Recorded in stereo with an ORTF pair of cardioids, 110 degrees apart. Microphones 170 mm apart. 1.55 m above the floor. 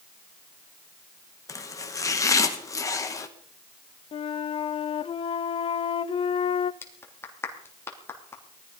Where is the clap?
15° left, 3 m.